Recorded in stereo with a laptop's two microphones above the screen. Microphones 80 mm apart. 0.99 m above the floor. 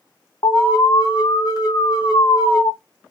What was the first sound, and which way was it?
An alarm, 50° left (ahead or behind).